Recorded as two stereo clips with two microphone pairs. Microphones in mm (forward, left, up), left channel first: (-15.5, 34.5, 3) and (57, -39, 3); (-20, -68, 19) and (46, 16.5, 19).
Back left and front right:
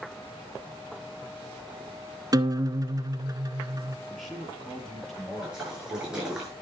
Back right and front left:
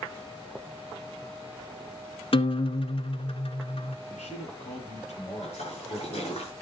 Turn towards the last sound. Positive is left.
turn(degrees=-130)